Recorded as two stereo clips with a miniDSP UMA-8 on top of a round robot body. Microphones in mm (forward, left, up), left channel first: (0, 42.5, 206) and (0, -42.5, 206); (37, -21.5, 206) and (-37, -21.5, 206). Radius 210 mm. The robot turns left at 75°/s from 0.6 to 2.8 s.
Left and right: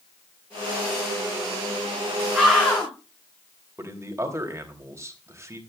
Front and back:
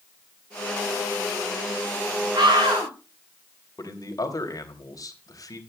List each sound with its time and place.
2.3 s a scream: 165° right, 6 m; by 2.9 s 160° left, 6 m
3.8 s a man speaking: 35° right, 3.5 m